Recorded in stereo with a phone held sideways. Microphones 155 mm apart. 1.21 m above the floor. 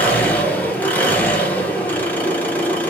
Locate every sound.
0.0 s an engine running: 10° left (ahead or behind), 1.0 m